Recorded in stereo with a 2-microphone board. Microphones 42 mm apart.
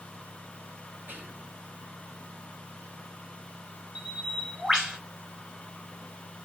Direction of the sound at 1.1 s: 55° right (ahead or behind).